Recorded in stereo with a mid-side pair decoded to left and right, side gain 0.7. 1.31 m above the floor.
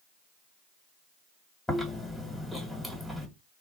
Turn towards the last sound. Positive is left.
turn(degrees=5)